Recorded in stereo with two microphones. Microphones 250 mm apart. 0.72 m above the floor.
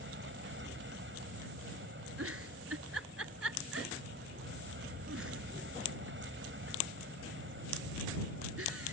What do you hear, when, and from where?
0.0 s an aircraft: 50° right (ahead or behind)
2.2 s a giggle: 65° right (ahead or behind)